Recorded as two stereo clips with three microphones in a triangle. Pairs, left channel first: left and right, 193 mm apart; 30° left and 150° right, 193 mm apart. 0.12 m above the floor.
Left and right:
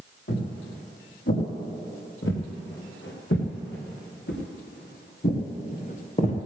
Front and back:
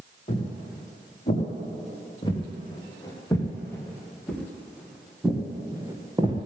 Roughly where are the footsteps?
Left.